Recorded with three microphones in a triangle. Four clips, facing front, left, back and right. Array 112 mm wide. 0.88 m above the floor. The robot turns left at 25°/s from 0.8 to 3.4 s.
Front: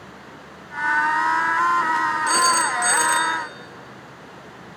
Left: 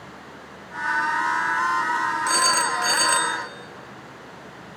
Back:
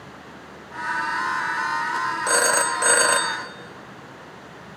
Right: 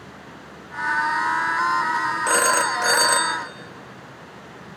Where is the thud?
No thud in this recording.